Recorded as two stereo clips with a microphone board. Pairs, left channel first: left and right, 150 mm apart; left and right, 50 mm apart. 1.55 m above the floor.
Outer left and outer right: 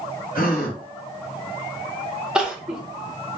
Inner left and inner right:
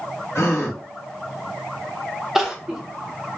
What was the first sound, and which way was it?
A gasp, 65° left (ahead or behind).